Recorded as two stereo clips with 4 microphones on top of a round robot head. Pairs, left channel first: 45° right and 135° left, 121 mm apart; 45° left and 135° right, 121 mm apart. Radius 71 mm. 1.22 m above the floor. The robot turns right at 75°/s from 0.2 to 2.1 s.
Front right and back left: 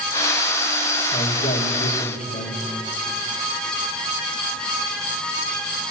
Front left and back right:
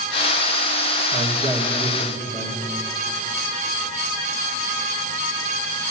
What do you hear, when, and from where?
1.1 s a man speaking: 100° right, 1.6 m; by 2.7 s 25° right, 1.6 m